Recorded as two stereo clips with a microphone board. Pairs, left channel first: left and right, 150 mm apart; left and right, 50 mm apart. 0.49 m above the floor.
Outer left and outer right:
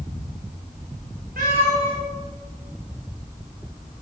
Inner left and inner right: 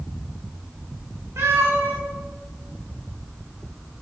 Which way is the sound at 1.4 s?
80° right.